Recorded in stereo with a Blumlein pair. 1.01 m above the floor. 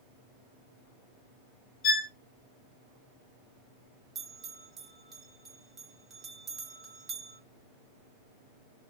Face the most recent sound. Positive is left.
turn(degrees=-25)